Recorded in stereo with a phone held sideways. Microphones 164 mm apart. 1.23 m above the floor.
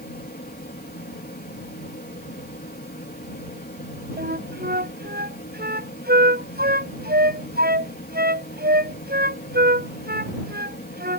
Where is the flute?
75° right (ahead or behind).